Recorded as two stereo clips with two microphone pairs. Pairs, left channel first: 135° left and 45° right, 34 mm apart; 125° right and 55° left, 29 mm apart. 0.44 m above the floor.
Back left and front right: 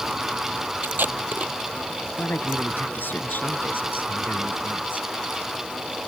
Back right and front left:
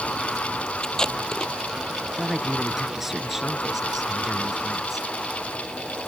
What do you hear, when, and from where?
0.8 s tape being pulled: 55° right
2.2 s a man speaking: 135° left